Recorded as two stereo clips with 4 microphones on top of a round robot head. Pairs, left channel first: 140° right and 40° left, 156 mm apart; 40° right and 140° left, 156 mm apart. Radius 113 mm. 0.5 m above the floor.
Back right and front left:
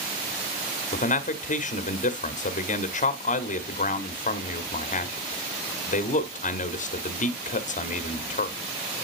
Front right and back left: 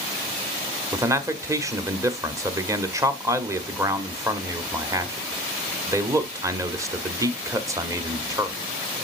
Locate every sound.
0.9 s a man speaking: 155° right, 1.2 m